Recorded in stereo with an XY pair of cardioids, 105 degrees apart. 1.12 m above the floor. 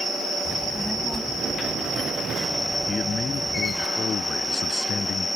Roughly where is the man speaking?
Ahead left.